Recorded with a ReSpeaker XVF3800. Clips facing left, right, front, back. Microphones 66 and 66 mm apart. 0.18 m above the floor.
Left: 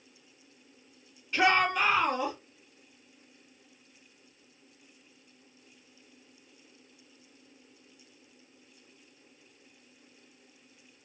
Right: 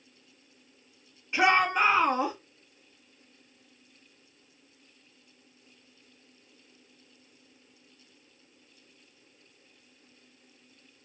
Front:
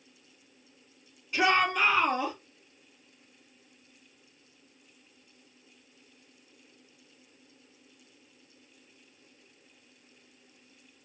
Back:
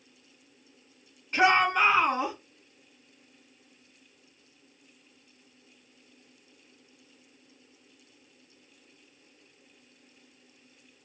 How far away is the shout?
About 1.8 m.